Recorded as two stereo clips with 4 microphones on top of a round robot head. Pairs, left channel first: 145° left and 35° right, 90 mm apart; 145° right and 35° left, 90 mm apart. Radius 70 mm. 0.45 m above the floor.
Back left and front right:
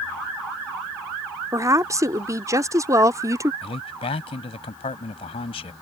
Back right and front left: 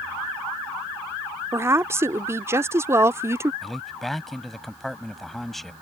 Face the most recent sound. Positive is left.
turn(degrees=130)